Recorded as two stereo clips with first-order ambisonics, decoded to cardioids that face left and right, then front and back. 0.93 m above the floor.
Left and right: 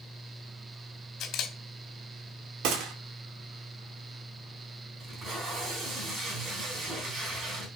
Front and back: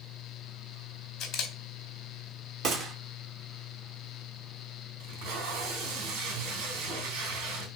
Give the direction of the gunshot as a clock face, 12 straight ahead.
4 o'clock.